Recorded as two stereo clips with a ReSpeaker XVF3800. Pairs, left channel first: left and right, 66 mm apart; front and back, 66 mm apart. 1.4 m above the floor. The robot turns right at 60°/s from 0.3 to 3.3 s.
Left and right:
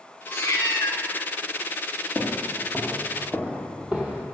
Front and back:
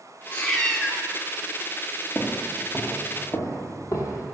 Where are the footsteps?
90° right, 1.6 m; by 4.2 s 20° right, 2.5 m.